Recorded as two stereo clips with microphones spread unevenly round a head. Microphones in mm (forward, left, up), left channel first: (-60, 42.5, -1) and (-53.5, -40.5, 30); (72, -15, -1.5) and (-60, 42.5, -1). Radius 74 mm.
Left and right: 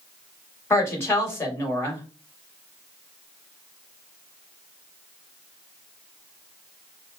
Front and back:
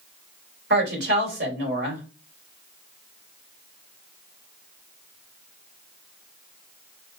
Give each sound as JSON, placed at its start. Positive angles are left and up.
{"t": 0.7, "sound": "a woman speaking", "azimuth_deg": 150, "distance_m": 2.0}